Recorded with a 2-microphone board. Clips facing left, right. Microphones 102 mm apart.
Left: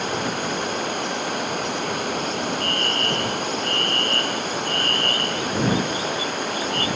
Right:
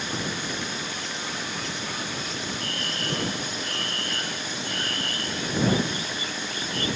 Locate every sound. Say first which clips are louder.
0.0 s running water: left 6 dB; 55° left (ahead or behind)
2.6 s a fire alarm: left 7 dB; 15° right (ahead or behind)